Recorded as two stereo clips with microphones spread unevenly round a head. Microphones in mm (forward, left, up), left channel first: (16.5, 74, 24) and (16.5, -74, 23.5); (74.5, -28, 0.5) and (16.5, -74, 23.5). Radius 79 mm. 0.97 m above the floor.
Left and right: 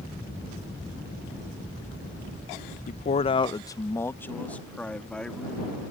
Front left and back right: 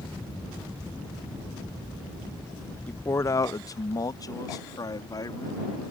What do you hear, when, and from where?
2.9 s a man speaking: 85° left; by 5.7 s 5° left